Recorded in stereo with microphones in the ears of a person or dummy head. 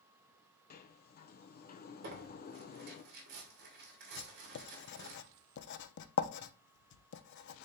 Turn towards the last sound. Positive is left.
turn(degrees=55)  # may be behind; listen again after turning